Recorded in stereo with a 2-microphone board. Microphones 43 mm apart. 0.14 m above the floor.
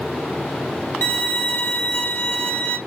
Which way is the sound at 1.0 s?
40° left (ahead or behind).